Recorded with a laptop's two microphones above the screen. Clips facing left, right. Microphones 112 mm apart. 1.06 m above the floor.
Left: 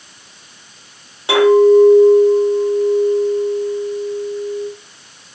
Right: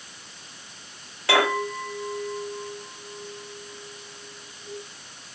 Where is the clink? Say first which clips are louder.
Left 15 dB; 20° left (ahead or behind), 1.5 m.